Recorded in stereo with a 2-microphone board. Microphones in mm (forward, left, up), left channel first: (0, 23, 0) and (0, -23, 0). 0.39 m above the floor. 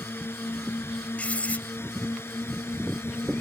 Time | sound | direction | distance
0.0 | a drone | 55° left (ahead or behind) | ?
1.2 | writing | 30° left (ahead or behind) | ?